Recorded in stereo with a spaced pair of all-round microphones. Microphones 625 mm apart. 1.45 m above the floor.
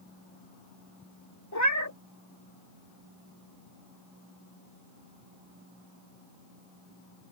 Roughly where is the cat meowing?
Left.